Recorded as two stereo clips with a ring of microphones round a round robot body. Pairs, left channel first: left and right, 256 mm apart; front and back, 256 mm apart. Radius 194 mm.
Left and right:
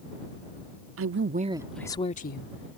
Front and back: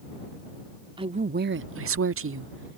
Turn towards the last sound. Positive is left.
turn(degrees=135)